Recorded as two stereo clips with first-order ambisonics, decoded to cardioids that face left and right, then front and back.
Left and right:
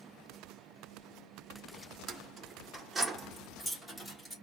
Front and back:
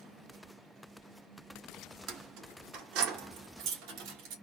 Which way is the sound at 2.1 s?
145° right.